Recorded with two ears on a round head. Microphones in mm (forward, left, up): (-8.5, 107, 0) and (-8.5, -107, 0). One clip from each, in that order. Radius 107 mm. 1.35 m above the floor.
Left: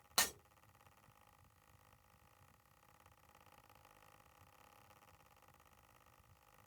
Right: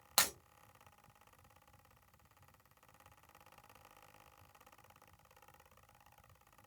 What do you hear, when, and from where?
0.2 s breaking glass: 15° right (ahead or behind), 0.8 m